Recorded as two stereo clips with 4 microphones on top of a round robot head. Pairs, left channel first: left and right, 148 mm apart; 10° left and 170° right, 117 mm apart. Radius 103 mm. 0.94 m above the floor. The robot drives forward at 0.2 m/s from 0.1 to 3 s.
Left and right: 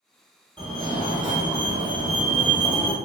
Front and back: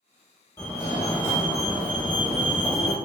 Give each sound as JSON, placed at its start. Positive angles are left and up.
{"t": 0.6, "sound": "a fire alarm", "azimuth_deg": -50, "distance_m": 1.8}